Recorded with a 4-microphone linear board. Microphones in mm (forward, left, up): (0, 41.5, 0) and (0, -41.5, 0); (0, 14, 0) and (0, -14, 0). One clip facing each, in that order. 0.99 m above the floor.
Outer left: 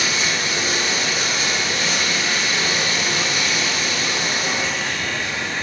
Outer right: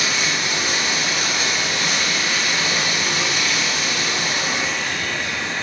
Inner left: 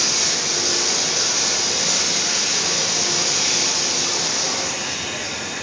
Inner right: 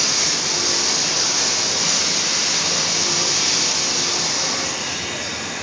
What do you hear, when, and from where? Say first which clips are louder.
0.0 s running water: even, inner right 1 dB; 60° right (ahead or behind), 1.7 m